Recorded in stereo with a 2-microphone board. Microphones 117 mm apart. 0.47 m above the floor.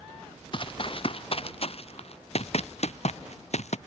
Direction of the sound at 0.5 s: 45° left (ahead or behind).